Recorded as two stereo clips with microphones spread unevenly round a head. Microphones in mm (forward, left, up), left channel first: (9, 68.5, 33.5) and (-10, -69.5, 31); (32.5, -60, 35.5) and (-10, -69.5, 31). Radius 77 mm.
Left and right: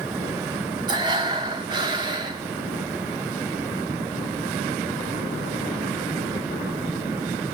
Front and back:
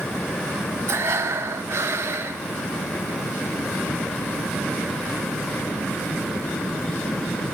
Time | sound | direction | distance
0.9 | breathing | 155° right | 0.8 m